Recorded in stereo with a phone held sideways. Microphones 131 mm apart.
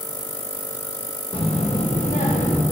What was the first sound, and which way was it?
A child speaking, 40° left (ahead or behind).